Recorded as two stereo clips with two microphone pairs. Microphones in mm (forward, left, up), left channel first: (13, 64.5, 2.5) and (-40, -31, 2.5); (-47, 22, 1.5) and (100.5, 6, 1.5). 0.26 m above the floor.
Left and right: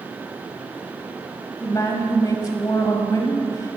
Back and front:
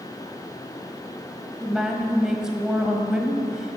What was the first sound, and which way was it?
A woman speaking, 75° left.